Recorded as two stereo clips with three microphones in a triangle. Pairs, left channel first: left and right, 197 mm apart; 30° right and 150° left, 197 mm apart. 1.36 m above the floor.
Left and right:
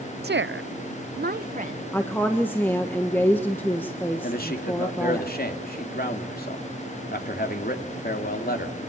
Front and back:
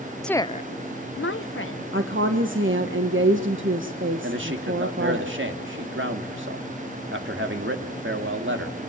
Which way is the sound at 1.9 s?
170° left.